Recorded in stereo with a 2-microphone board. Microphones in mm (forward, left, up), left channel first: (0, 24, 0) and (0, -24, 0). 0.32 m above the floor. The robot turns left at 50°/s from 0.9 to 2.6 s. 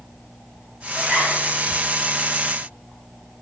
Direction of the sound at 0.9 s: 35° right (ahead or behind).